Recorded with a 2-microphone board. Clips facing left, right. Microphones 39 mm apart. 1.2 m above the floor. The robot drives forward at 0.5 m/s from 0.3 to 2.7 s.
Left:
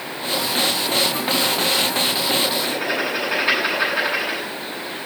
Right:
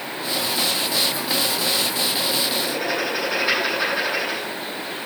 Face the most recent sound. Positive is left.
turn(degrees=20)  # may be behind; listen again after turning